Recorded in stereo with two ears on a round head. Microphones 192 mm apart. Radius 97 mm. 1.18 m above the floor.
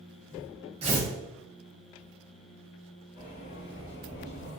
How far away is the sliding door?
About 1.2 m.